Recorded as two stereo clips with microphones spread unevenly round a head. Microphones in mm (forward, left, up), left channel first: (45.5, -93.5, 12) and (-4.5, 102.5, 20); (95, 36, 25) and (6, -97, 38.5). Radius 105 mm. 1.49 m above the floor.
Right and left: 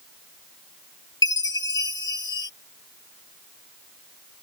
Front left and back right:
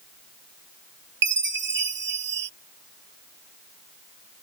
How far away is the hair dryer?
I don't hear a hair dryer.